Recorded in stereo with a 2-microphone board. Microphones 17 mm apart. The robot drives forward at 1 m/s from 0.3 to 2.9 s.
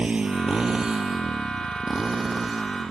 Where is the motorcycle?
70° right (ahead or behind); by 2.9 s 20° right (ahead or behind).